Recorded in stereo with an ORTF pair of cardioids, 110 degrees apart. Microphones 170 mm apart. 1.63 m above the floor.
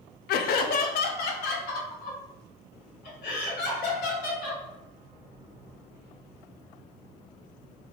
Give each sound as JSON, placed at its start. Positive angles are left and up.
{"t": 0.3, "sound": "laughter", "azimuth_deg": 70, "distance_m": 0.5}